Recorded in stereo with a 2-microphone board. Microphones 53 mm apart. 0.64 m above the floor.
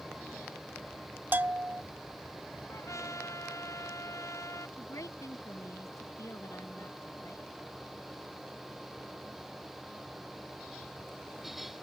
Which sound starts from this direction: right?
A bell, at 1.3 s.